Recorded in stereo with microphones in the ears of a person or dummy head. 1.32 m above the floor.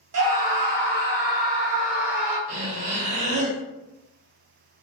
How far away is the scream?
About 0.7 m.